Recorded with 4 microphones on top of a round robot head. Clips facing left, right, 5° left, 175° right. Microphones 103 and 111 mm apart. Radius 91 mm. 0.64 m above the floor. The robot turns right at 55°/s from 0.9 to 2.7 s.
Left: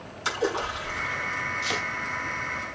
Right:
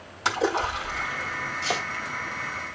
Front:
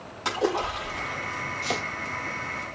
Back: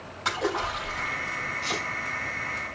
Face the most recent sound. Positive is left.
turn(degrees=15)